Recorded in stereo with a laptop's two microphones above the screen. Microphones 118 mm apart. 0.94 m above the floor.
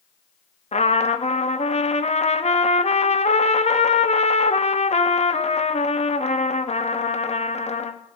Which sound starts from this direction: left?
A trumpet, at 0.7 s.